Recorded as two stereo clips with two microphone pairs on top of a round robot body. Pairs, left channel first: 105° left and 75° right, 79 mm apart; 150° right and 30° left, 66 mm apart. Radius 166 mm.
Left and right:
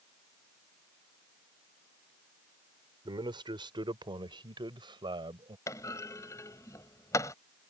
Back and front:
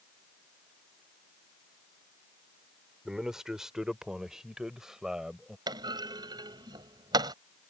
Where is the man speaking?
55° right.